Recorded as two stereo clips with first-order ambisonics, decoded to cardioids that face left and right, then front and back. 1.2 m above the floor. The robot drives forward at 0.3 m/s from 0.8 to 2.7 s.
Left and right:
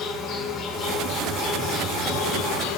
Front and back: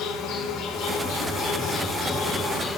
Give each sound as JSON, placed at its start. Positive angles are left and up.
{"t": 0.0, "sound": "an insect", "azimuth_deg": 40, "distance_m": 0.9}